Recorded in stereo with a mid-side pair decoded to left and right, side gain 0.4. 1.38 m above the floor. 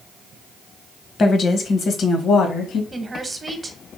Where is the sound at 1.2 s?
50° left, 1.0 m; by 2.8 s 80° left, 1.6 m.